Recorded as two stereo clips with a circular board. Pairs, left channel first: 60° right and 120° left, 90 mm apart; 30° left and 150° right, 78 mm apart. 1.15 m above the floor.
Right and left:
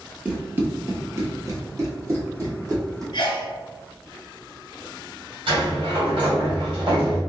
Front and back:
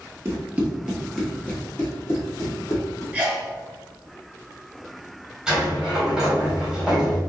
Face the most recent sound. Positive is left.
turn(degrees=125)